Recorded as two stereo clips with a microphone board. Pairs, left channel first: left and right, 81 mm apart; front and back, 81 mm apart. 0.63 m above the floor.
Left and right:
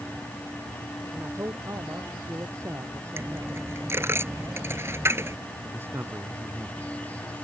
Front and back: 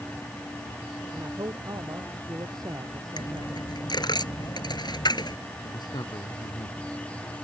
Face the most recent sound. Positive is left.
turn(degrees=-30)